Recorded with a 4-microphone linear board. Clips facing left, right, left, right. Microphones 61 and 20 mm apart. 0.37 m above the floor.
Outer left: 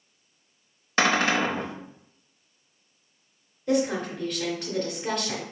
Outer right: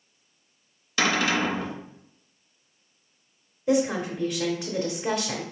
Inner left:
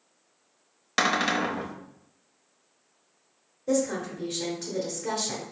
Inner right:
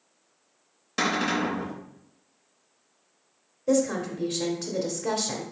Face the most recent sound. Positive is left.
turn(degrees=-15)  # may be behind; listen again after turning